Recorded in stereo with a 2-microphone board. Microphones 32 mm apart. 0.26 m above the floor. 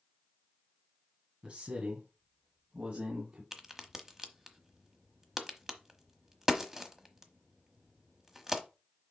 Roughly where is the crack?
Centre.